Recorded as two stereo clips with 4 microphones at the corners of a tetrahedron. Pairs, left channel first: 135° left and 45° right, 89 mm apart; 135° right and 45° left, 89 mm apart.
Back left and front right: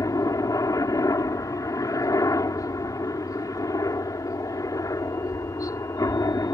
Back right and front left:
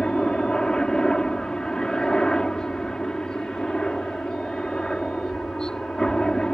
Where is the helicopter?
145° left.